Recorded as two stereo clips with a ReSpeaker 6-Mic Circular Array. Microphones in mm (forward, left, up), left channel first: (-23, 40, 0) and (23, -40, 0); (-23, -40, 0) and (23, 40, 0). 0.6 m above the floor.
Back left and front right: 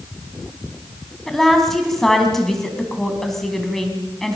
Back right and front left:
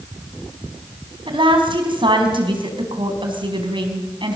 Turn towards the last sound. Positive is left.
turn(degrees=35)